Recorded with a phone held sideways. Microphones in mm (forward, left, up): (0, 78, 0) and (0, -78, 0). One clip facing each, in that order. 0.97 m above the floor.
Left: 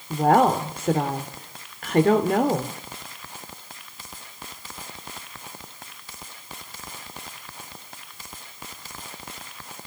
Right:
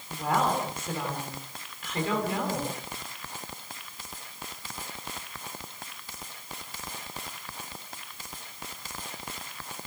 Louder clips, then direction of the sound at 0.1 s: Left 9 dB; 60° left (ahead or behind).